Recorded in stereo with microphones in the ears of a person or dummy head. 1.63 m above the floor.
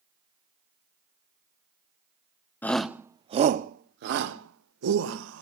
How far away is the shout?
About 0.6 m.